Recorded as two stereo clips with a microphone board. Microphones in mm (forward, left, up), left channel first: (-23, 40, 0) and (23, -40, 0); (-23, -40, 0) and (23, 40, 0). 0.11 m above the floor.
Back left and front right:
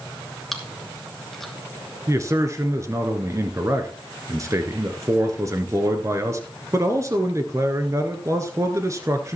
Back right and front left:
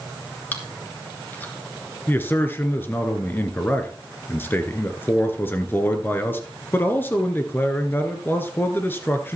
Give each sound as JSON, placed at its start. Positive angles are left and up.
{"t": 0.5, "sound": "chewing", "azimuth_deg": -155, "distance_m": 1.9}
{"t": 2.1, "sound": "a man speaking", "azimuth_deg": -75, "distance_m": 1.4}